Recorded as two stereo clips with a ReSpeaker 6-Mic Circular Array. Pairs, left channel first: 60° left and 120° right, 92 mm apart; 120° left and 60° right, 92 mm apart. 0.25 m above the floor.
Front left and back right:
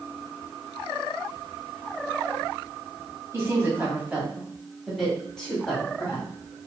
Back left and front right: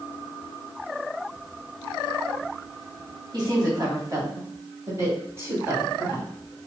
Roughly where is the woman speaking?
Right.